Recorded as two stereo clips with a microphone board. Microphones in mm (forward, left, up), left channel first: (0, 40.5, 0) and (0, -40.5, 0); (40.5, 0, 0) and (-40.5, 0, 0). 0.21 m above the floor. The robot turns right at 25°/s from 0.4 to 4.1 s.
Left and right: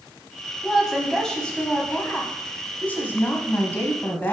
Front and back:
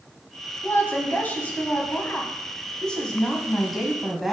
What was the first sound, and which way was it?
A woman speaking, 5° left.